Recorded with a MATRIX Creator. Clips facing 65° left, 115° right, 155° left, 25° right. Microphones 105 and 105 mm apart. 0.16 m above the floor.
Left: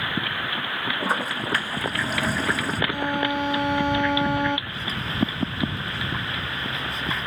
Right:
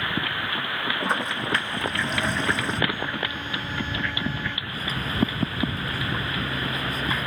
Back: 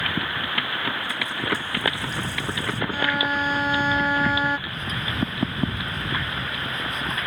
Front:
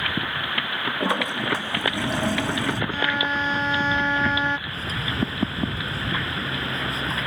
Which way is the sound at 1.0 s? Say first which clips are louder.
Left 1 dB, front 5 dB; 20° right.